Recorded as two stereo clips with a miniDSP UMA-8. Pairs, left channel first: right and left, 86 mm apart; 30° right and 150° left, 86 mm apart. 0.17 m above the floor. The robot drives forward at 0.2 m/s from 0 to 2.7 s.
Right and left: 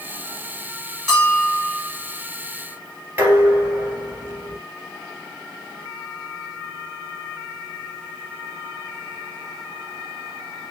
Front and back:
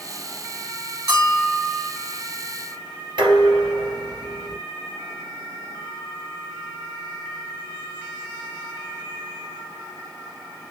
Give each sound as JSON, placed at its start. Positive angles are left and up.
{"t": 1.1, "sound": "a bell", "azimuth_deg": -170, "distance_m": 2.5}
{"t": 3.2, "sound": "dishes clattering", "azimuth_deg": 155, "distance_m": 1.8}